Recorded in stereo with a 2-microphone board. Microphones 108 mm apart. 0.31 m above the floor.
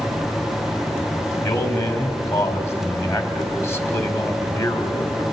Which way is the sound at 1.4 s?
25° left (ahead or behind).